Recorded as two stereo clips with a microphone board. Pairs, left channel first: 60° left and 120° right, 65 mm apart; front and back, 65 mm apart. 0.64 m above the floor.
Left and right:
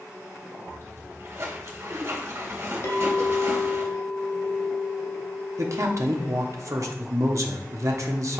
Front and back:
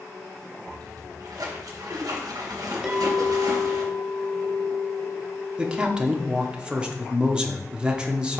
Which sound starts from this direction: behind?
A splash, at 0.7 s.